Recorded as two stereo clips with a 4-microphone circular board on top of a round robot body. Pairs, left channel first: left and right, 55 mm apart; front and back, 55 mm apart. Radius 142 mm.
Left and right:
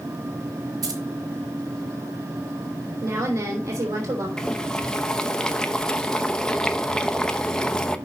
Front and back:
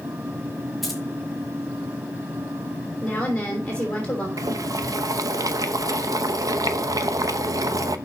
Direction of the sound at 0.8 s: 90° right.